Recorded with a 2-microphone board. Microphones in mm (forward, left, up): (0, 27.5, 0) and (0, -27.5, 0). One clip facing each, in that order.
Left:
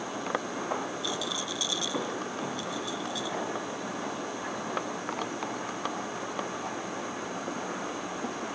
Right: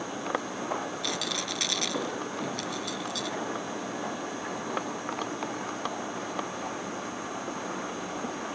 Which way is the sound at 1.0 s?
70° right (ahead or behind).